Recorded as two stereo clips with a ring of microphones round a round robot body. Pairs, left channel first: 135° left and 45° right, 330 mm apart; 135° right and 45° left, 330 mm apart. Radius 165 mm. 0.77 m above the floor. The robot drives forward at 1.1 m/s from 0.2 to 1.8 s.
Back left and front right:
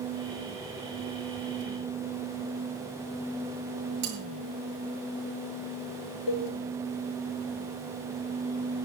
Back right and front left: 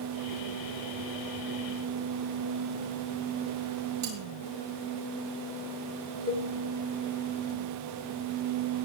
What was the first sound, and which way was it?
Cutlery clinking, 5° right.